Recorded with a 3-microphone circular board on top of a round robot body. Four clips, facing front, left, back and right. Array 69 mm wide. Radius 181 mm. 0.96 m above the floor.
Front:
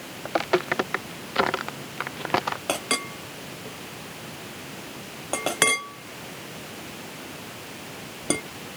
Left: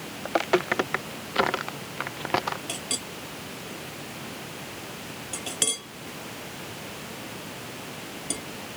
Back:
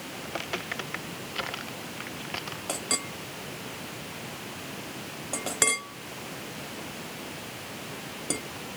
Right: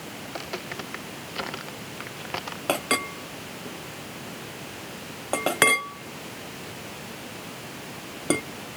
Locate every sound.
0.2 s footsteps: 45° left; by 2.6 s 25° left
2.7 s a clink: 65° right